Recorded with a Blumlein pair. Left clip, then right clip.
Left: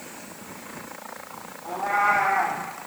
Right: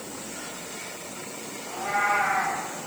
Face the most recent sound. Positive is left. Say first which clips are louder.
# left 3 dB
turn(degrees=30)